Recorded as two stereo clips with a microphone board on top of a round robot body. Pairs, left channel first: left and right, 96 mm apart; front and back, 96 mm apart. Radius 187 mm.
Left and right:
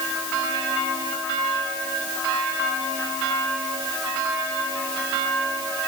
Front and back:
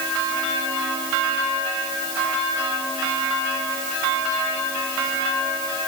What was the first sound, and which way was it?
Only background noise.